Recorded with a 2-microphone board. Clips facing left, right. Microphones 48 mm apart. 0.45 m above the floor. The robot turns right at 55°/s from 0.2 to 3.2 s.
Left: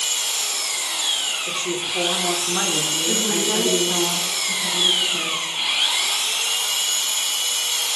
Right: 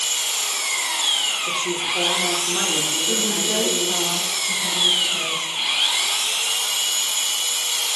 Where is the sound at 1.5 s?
10° right (ahead or behind), 1.2 m; by 4.1 s 25° left (ahead or behind), 1.2 m.